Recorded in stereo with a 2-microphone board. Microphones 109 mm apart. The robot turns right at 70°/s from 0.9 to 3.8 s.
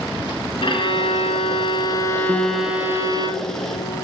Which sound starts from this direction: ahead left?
A violin, at 0.6 s.